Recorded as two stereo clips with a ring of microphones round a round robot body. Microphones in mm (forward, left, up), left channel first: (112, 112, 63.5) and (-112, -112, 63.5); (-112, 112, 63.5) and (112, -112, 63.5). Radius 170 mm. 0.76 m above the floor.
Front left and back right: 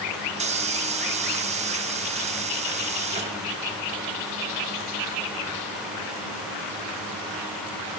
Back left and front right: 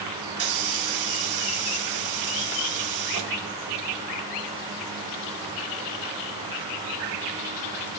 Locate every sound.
0.3 s a hiss: 65° right, 3 m